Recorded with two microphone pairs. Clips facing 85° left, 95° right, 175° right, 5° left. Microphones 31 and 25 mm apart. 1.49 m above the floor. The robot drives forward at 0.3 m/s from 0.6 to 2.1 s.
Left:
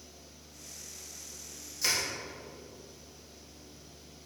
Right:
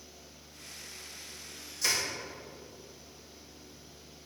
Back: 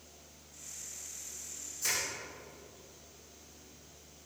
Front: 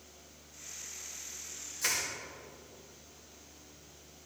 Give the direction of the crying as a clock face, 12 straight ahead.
I don't hear crying.